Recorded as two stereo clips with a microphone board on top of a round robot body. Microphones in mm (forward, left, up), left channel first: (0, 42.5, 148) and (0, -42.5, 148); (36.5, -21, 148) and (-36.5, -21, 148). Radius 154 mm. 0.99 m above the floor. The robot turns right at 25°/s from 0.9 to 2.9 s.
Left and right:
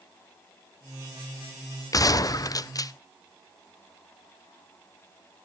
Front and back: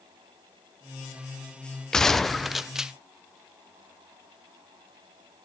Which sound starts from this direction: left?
A gunshot, at 1.9 s.